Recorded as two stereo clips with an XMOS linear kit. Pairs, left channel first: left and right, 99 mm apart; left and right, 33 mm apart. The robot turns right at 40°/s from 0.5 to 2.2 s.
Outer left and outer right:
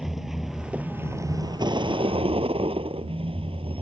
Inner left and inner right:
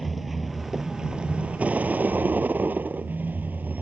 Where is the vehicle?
175° right; by 3.8 s 110° right.